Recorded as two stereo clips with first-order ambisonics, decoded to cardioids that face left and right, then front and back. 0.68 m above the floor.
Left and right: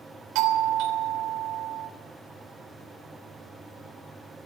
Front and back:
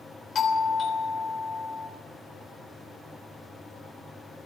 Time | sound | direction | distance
0.3 | a doorbell | 65° right | 3 m